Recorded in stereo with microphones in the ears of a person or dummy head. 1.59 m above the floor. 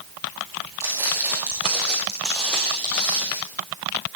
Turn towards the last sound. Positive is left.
turn(degrees=10)  # may be behind; listen again after turning